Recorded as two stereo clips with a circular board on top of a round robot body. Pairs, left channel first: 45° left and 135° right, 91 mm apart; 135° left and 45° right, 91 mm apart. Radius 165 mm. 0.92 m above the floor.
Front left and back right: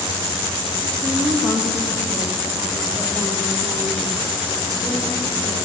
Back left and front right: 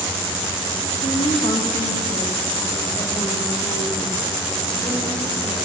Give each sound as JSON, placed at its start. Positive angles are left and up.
{"t": 1.0, "sound": "a woman speaking", "azimuth_deg": 140, "distance_m": 1.6}